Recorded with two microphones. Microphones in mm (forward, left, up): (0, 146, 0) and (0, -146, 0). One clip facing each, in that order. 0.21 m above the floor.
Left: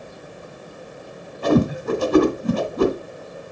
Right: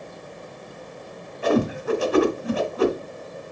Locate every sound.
1.4 s a whoosh: 45° left (ahead or behind), 1.6 m